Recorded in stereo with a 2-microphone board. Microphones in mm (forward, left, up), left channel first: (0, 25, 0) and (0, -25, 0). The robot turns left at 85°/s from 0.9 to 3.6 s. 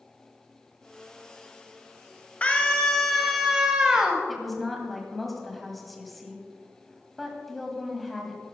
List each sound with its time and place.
2.4 s a scream: 25° left (ahead or behind), 1.0 m; by 4.2 s 15° right (ahead or behind), 1.0 m
4.3 s a woman speaking: centre (ahead or behind), 1.7 m